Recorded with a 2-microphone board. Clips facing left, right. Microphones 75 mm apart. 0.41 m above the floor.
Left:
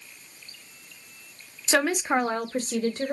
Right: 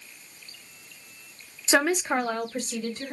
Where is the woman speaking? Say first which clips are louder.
Even; 15° right (ahead or behind), 0.7 m; by 3.1 s 60° left (ahead or behind), 1.3 m.